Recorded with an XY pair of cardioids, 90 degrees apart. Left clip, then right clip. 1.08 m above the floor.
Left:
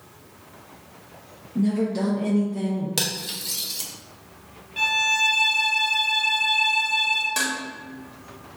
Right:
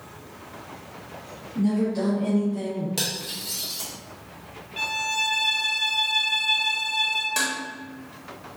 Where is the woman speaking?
55° left, 0.8 m; by 2.9 s 5° left, 0.8 m.